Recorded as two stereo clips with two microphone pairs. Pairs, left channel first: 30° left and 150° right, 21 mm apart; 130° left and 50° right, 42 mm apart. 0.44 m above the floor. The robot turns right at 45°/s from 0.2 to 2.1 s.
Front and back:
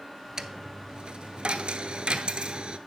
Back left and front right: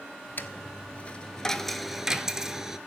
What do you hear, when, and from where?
0.4 s a dropped coin: 150° left, 0.6 m; by 2.8 s 130° right, 0.6 m